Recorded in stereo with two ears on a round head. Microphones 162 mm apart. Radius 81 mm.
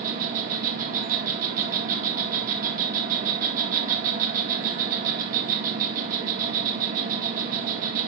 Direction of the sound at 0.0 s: 45° right (ahead or behind).